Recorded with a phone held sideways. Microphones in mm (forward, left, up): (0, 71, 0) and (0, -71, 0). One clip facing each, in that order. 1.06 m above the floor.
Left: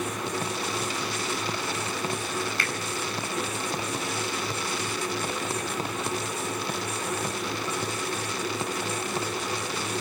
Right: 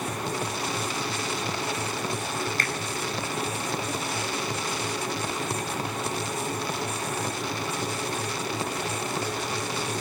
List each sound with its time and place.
0.0 s a fan: 35° right (ahead or behind), 8.5 m
2.6 s a finger snap: 40° right (ahead or behind), 5 m